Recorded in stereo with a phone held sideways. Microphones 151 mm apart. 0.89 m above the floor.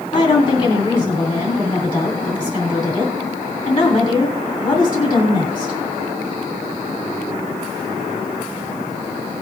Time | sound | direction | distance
0.1 | a woman speaking | 30° left (ahead or behind) | 3 m